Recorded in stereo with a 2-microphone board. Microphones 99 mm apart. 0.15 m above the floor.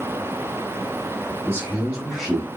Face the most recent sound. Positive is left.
turn(degrees=5)  # may be behind; listen again after turning